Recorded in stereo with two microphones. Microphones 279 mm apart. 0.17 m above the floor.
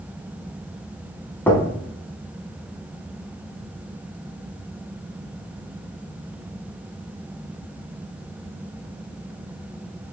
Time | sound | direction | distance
1.5 | knocking | 5° left (ahead or behind) | 0.7 m